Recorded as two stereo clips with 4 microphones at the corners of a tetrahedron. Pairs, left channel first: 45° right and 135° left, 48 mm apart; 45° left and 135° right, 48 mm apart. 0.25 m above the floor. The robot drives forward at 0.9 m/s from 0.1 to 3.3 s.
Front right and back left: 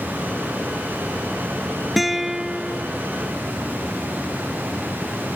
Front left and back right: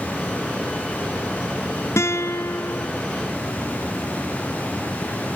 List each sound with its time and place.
2.0 s a guitar: 45° left; by 2.9 s 70° left